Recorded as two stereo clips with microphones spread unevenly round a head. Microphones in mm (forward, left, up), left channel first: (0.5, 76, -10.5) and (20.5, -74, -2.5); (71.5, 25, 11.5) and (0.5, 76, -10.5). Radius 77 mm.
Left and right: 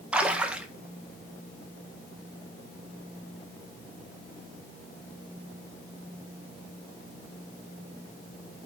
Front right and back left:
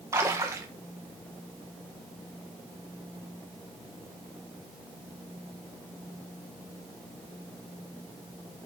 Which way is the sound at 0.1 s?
165° right.